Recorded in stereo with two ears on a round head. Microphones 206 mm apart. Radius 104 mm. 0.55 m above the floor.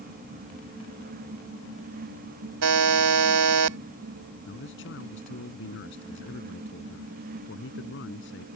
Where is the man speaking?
60° left (ahead or behind).